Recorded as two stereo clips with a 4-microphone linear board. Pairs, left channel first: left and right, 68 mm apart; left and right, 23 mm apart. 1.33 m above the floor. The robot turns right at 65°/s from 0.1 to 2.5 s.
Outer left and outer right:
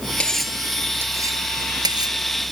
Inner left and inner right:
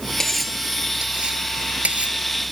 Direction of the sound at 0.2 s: 15° left (ahead or behind).